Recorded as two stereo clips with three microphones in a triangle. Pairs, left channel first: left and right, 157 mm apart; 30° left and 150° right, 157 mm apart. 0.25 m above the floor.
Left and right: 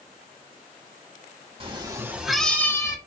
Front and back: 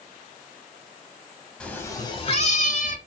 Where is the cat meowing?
50° right, 0.8 m; by 3.0 s 30° left, 0.9 m.